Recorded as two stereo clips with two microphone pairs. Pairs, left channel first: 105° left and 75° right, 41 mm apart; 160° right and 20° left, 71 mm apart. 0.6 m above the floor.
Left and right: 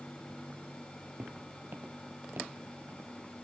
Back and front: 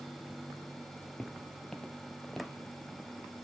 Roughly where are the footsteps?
Right.